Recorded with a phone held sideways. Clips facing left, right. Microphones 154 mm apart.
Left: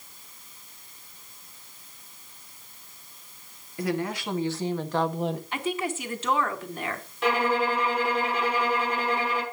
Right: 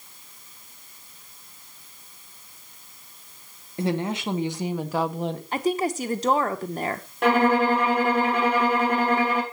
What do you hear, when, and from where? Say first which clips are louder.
3.8 s a woman speaking: right 3 dB; 25° right (ahead or behind), 2 m; by 5.4 s 5° left (ahead or behind), 1.4 m
5.5 s a woman speaking: right 5 dB; 40° right (ahead or behind), 1.1 m
7.2 s a violin: right 5 dB; 55° right (ahead or behind), 4 m